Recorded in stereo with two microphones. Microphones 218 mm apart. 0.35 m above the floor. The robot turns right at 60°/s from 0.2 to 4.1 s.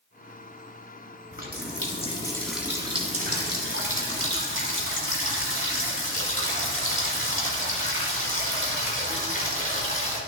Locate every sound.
1.3 s a running tap: 105° left, 1.7 m; by 10.2 s 85° right, 1.7 m